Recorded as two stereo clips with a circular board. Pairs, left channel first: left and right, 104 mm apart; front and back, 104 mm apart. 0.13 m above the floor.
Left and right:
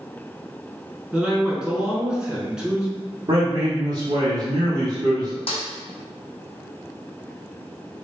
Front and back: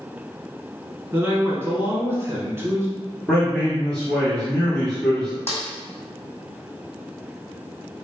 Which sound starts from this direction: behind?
A man speaking, at 1.1 s.